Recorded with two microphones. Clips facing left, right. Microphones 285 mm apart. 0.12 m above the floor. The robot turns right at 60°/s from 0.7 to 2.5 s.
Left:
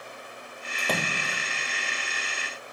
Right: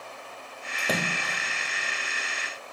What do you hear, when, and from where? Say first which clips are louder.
0.8 s a splash: right 1 dB; 10° right, 1.9 m; by 1.5 s 30° left, 1.9 m